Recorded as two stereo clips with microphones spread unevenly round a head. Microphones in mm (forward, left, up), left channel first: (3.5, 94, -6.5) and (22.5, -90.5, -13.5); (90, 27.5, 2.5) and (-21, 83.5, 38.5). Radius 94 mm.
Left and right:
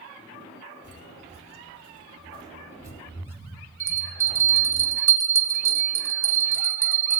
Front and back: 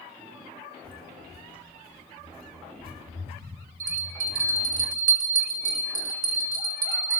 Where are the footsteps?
125° right, 2 m; by 4.8 s 175° right, 3.5 m.